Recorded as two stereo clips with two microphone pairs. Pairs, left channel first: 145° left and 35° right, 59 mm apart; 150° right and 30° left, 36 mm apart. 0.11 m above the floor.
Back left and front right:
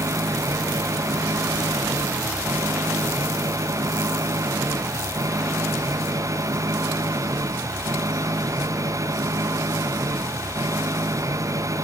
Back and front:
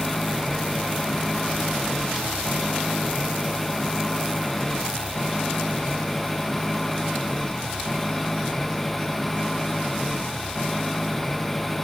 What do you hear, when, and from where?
0.0 s an engine running: 65° right